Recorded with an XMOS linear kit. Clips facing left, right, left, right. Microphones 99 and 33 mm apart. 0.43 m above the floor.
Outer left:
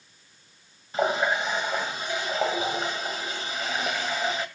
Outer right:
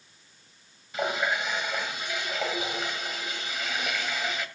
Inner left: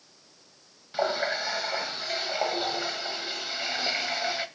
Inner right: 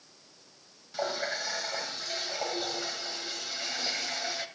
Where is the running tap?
30° left (ahead or behind), 1.7 m.